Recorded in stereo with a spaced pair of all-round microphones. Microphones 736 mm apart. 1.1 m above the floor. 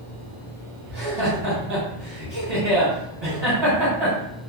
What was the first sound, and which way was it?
Laughter, 35° right (ahead or behind).